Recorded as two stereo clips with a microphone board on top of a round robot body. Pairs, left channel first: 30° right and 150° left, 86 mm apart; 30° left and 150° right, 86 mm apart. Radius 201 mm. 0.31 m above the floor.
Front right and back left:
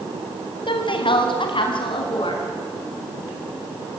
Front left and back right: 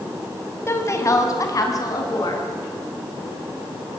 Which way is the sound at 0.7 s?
30° right.